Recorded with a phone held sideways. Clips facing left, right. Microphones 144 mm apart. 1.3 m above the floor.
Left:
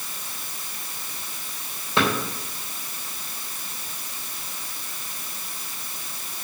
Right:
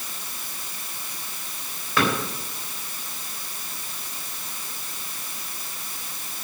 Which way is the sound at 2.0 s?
25° left (ahead or behind).